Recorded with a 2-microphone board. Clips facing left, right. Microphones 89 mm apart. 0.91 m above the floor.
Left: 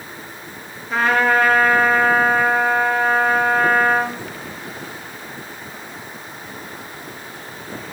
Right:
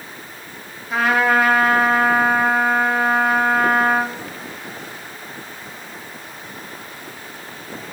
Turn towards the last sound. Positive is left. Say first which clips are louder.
# even
turn(degrees=-5)  # may be behind; listen again after turning